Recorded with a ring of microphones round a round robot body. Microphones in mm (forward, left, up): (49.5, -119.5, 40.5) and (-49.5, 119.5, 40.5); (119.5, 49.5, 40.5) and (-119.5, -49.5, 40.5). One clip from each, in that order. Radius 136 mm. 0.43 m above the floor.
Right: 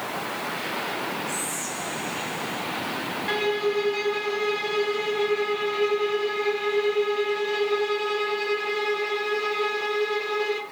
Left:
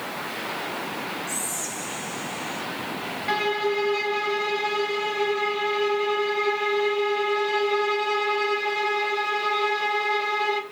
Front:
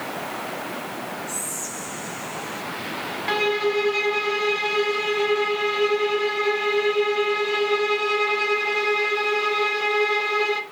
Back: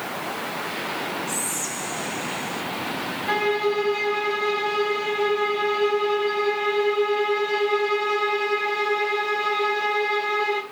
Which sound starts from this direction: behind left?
Whispering, at 1.3 s.